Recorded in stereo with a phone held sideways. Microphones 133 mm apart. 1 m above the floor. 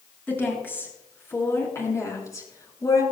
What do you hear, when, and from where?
0.3 s a woman speaking: 15° left (ahead or behind), 7.5 m; by 3.0 s 25° left (ahead or behind), 6.5 m